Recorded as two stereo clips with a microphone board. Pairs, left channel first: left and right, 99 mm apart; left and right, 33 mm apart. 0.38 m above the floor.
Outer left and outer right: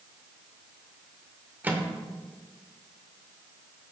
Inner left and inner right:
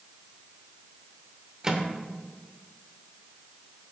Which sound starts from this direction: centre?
A microwave, at 1.6 s.